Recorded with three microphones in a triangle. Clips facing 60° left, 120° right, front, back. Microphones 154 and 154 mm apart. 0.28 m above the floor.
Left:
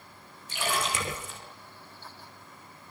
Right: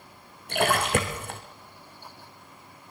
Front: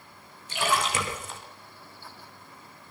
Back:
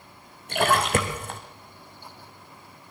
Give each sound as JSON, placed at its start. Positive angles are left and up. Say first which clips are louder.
{"t": 0.5, "sound": "a splash", "louder": "right 8 dB, back 5 dB", "azimuth_deg": -145, "distance_m": 4.0}